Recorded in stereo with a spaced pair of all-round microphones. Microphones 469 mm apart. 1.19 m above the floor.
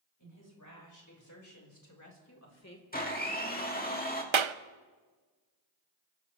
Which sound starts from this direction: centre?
A blender, at 2.9 s.